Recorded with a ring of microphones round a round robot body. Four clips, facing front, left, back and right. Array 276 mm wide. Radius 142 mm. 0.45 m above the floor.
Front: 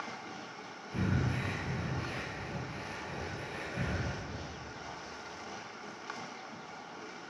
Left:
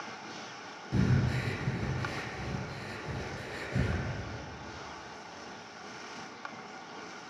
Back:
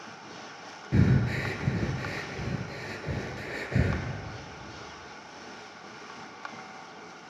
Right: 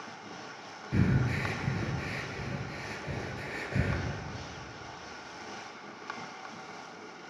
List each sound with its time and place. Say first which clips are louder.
0.9 s breathing: right 1 dB, back 8 dB; 175° right, 1.4 m